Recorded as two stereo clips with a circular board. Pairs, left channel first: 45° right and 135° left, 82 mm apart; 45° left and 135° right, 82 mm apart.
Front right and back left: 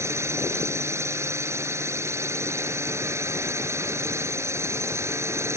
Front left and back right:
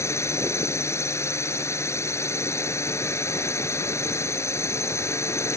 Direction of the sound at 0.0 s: 90° left.